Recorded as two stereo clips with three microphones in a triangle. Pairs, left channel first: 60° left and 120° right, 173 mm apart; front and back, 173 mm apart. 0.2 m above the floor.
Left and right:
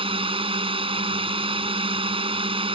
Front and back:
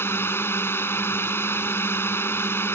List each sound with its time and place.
0.0 s a drone: 75° right